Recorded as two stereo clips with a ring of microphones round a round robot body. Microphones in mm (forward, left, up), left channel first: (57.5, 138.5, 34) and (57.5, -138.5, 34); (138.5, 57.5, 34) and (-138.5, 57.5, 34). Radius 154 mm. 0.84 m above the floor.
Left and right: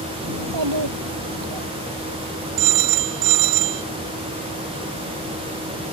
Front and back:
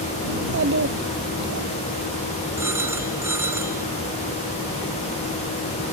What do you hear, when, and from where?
0.3 s a child speaking: 120° right
2.6 s a phone ringing: 100° right